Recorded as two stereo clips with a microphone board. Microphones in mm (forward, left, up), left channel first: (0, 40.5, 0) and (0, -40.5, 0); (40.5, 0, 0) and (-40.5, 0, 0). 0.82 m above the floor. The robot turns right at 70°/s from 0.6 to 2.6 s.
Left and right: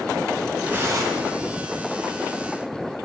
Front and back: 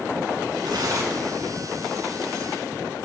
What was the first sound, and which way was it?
Tearing paper, 160° right.